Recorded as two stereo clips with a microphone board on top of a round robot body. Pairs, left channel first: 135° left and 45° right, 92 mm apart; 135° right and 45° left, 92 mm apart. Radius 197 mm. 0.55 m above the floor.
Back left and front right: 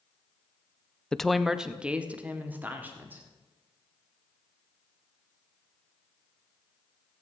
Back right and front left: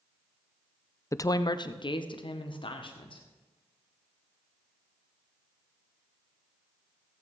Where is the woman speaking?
150° right, 0.7 m; by 3.2 s 115° right, 1.7 m.